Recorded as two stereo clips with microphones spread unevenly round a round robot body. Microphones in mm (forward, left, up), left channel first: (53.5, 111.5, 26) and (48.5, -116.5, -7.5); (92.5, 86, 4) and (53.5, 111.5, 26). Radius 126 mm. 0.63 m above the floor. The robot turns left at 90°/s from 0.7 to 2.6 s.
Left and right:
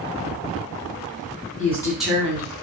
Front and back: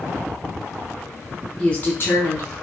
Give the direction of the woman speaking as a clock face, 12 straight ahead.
11 o'clock.